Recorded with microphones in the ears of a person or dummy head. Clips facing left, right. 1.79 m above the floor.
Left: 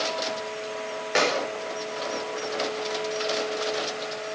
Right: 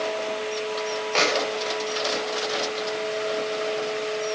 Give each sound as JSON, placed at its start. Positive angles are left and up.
{"t": 1.1, "sound": "a clap", "side_deg": 20, "distance_m": 5.5}